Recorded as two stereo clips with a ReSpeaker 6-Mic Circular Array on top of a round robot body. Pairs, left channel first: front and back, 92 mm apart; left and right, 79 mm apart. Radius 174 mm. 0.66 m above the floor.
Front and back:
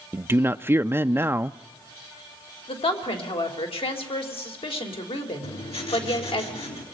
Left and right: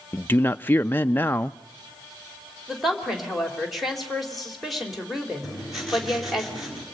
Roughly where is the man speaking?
Behind left.